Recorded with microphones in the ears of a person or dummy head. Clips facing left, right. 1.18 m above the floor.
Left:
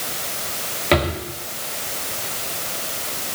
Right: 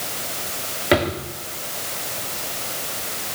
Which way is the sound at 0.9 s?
5° right (ahead or behind).